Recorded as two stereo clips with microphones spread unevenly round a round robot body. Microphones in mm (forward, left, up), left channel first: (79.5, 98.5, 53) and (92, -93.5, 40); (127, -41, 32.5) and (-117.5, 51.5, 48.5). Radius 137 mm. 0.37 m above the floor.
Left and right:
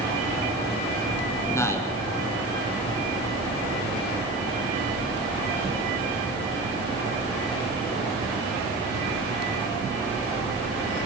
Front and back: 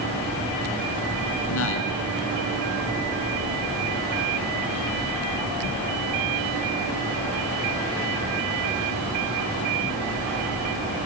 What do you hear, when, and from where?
1.5 s a man speaking: 20° left, 4.5 m